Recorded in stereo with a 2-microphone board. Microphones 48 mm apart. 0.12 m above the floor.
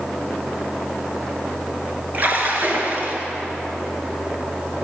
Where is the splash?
40° right (ahead or behind), 1.7 m.